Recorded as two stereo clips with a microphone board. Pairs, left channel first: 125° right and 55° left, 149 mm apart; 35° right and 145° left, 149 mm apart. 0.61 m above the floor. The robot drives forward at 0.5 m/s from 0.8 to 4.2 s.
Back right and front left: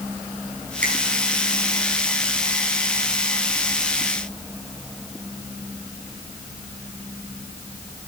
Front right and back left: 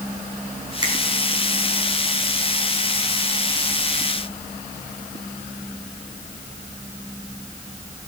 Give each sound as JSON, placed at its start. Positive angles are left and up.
{"t": 0.8, "sound": "a finger snap", "azimuth_deg": 85, "distance_m": 5.0}